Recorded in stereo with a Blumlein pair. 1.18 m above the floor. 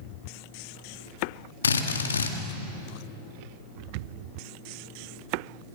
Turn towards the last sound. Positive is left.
turn(degrees=70)